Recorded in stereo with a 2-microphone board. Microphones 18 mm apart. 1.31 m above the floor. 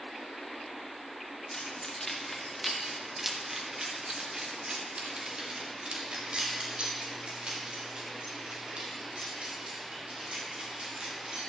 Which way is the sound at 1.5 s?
25° left (ahead or behind).